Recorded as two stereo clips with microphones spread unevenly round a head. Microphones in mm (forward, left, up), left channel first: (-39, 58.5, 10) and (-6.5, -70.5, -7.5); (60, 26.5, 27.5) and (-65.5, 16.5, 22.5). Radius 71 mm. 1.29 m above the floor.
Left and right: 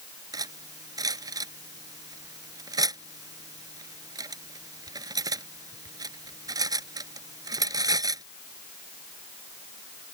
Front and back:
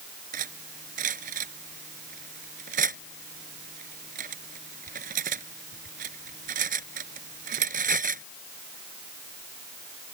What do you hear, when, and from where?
0.3 s cutlery clinking: 140° right